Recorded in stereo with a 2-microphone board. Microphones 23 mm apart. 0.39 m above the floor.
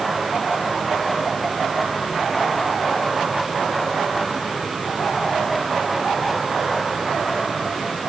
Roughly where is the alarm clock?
I don't hear an alarm clock.